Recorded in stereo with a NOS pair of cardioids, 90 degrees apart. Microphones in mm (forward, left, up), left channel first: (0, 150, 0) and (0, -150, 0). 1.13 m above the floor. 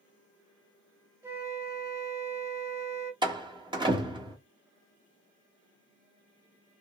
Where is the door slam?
15° right, 1.4 m.